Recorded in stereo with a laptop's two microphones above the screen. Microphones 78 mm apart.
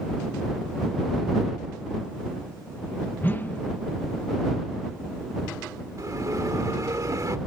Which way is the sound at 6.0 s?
50° right (ahead or behind).